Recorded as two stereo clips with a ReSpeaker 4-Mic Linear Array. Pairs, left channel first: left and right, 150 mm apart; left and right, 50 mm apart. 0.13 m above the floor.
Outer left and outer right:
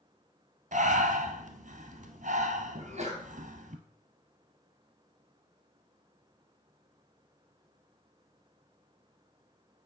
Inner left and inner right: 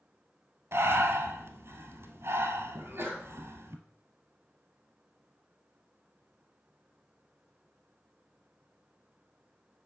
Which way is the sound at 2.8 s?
50° right (ahead or behind).